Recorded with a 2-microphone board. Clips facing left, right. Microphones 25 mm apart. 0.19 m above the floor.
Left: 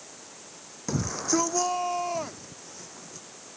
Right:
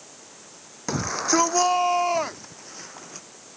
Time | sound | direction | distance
0.9 | a shout | 40° right (ahead or behind) | ?